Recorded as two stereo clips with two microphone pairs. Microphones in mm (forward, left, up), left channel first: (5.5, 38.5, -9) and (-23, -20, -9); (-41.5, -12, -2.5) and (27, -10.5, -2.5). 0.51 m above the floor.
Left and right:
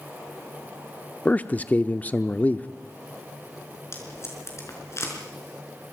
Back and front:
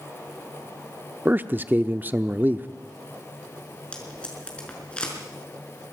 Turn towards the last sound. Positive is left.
turn(degrees=105)